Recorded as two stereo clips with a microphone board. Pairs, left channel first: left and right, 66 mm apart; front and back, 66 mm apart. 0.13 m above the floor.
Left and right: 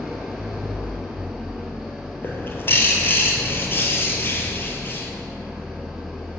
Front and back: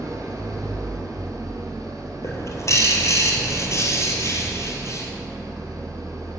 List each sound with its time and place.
0.0 s an engine running: 175° right, 1.2 m
2.2 s a bird: 35° left, 1.2 m